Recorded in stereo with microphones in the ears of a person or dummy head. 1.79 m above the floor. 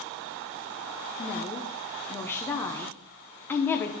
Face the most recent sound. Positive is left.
turn(degrees=15)  # may be behind; listen again after turning